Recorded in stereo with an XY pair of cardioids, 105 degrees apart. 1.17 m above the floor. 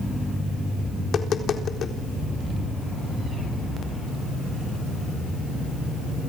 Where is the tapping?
55° left, 4 m.